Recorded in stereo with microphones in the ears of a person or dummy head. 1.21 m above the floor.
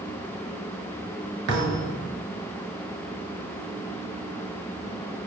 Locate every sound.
1.5 s a thud: 65° right (ahead or behind), 8 m